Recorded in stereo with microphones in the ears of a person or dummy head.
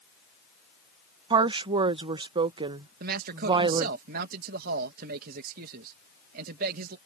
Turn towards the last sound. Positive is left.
turn(degrees=-55)  # may be behind; listen again after turning